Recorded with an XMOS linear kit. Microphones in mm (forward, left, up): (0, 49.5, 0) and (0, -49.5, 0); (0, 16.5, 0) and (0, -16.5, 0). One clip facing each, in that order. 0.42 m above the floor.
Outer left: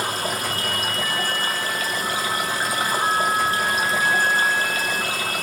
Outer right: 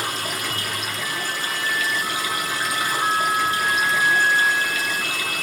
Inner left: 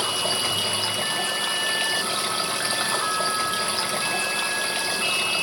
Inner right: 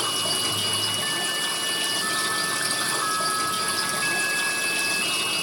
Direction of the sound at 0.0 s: 40° left (ahead or behind).